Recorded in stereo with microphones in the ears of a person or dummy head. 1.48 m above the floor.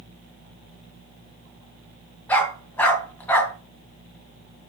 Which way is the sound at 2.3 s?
10° left (ahead or behind).